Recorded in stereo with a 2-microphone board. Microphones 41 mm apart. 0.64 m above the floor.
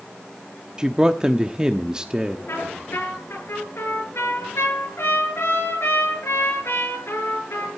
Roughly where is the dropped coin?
I don't hear a dropped coin.